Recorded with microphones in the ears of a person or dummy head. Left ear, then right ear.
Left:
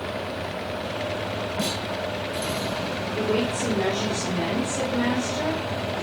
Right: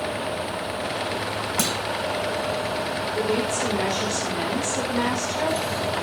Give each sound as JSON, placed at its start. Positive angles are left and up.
{"t": 1.6, "sound": "a clunk", "side_deg": -60, "distance_m": 1.5}
{"t": 3.1, "sound": "a woman speaking", "side_deg": -55, "distance_m": 4.0}